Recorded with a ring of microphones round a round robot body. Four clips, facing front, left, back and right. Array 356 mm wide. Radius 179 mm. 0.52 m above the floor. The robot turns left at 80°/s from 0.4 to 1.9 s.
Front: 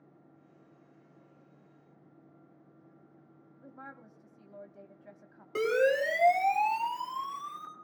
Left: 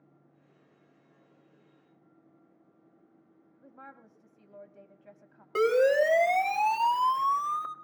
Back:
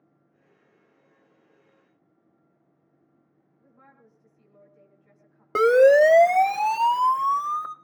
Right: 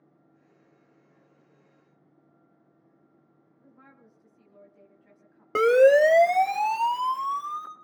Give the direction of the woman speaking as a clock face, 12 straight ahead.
11 o'clock.